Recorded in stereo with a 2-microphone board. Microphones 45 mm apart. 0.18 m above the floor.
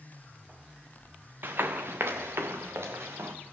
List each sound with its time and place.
1.4 s running footsteps: 50° right (ahead or behind), 0.9 m; by 3.3 s 75° right (ahead or behind), 2.0 m